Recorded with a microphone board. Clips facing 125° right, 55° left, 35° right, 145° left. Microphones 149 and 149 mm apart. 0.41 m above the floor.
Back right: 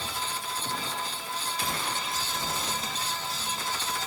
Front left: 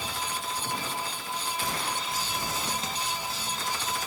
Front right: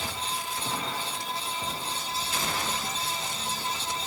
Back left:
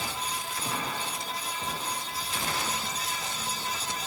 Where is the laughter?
No laughter in this recording.